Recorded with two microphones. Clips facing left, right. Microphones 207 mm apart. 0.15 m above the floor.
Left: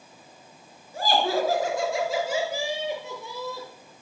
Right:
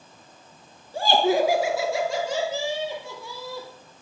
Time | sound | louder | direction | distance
0.9 | laughter | right 4 dB | 30° right (ahead or behind) | 1.8 m